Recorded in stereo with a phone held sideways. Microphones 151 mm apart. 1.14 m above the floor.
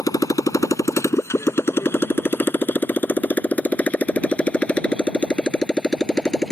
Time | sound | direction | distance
0.0 | a motorcycle | 25° left (ahead or behind) | ?